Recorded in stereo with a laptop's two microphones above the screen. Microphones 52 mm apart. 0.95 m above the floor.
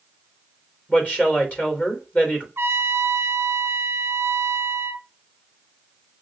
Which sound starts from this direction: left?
A woman speaking, at 0.9 s.